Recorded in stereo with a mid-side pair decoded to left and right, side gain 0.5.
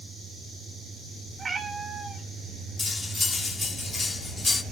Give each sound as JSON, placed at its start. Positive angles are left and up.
{"t": 1.4, "sound": "a cat meowing", "azimuth_deg": -35, "distance_m": 2.5}
{"t": 2.8, "sound": "cutlery clinking", "azimuth_deg": 20, "distance_m": 2.0}